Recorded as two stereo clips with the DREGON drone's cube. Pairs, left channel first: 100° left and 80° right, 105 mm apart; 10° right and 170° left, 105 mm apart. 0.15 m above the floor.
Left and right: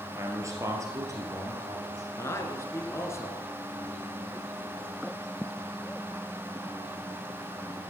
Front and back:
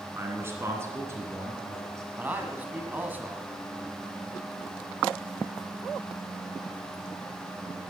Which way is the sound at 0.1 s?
130° right.